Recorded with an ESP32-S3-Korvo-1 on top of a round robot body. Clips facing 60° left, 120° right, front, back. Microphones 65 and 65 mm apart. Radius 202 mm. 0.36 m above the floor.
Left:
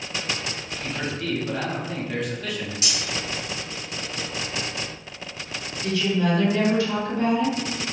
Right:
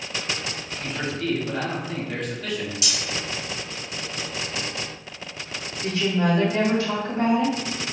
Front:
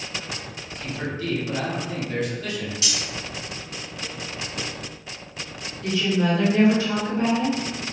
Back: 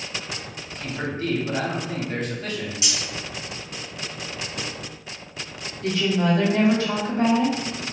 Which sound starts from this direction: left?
Cutlery clinking, at 2.8 s.